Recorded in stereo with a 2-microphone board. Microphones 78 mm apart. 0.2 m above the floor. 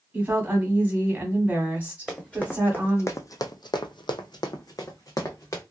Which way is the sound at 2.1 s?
10° left (ahead or behind).